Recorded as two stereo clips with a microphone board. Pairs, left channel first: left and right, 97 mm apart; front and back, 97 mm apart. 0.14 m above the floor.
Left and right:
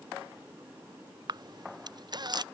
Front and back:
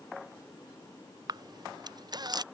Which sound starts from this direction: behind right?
A camera shutter, at 1.3 s.